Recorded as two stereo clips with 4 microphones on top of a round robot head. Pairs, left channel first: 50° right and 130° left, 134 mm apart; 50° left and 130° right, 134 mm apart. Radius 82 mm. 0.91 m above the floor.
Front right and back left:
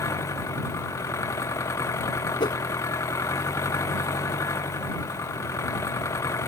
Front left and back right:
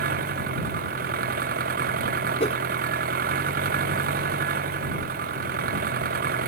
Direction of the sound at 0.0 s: 120° right.